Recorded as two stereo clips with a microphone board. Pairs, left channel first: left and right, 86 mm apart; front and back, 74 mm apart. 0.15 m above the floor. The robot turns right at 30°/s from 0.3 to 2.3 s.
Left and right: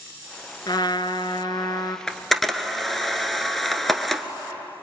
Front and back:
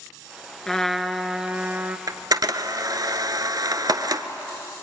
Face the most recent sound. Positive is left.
turn(degrees=175)